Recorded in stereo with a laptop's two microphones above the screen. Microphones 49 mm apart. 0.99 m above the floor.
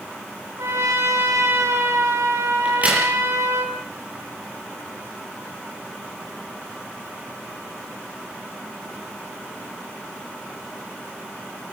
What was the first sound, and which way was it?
A trumpet, 80° right.